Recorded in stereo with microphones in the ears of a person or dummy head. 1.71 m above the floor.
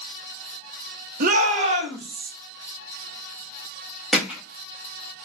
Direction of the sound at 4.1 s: 5° right (ahead or behind).